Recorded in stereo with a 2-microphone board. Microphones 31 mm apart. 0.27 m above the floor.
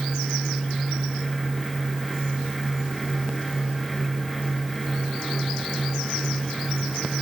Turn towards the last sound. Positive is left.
No sound to turn to.